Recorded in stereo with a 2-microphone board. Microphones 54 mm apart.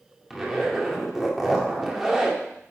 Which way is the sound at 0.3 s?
5° right (ahead or behind).